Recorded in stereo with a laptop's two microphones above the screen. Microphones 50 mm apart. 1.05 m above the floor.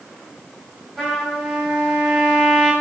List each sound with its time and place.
1.0 s a trumpet: 10° right (ahead or behind), 2.5 m